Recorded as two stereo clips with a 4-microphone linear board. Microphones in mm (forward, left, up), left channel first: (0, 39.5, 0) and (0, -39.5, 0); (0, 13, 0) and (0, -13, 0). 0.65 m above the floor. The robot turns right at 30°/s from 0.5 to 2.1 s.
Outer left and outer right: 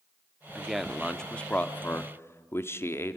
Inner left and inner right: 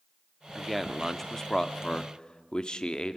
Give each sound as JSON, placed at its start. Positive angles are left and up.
{"t": 0.6, "sound": "a man speaking", "azimuth_deg": -5, "distance_m": 1.0}